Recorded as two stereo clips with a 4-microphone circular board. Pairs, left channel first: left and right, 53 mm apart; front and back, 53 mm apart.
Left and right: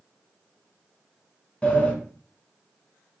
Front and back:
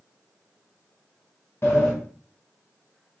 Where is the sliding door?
25° left, 1.5 m.